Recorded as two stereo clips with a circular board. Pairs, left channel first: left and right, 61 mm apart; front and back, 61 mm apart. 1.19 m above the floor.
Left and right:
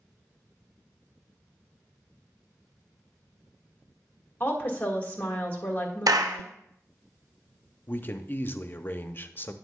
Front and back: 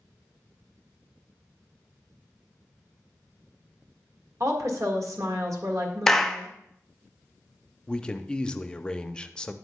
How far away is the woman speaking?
About 1.6 m.